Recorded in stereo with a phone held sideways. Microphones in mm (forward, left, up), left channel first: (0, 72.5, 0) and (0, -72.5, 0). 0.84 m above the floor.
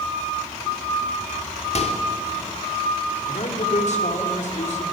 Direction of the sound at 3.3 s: 60° left (ahead or behind).